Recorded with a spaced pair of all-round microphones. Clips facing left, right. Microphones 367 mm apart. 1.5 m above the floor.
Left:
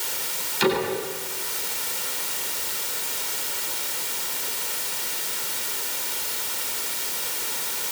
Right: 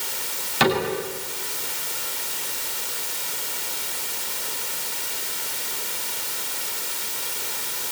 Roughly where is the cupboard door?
Right.